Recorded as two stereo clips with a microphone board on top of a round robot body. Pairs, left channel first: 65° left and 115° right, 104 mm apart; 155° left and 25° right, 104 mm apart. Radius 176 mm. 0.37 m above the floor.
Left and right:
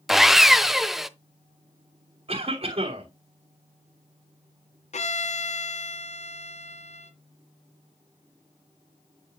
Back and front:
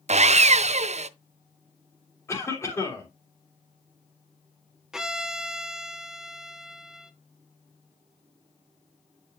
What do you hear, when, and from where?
0.1 s sawing: 25° right, 0.5 m
2.3 s a cough: 140° right, 3 m
4.9 s a violin: 65° left, 1.0 m